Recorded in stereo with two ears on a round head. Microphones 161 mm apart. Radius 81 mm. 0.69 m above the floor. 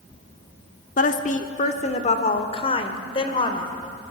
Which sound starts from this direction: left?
A woman speaking, at 1.0 s.